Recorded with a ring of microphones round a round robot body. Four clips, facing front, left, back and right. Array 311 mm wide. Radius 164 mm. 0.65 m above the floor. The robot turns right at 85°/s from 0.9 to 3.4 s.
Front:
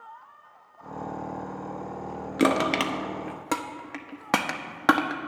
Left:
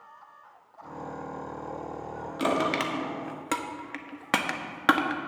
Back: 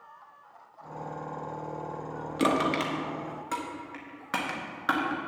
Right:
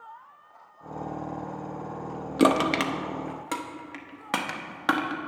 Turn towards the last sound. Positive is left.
turn(degrees=15)